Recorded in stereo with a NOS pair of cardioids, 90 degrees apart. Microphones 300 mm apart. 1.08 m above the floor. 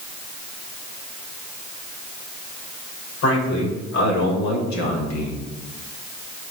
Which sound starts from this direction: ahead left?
A man speaking, at 3.2 s.